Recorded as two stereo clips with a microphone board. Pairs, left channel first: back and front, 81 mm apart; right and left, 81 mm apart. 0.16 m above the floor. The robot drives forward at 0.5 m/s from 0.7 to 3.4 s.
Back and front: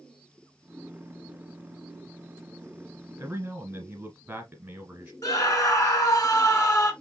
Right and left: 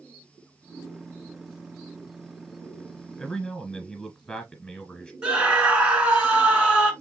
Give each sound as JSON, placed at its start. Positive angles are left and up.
{"t": 3.2, "sound": "a man speaking", "azimuth_deg": -30, "distance_m": 1.2}
{"t": 5.2, "sound": "a scream", "azimuth_deg": 165, "distance_m": 1.5}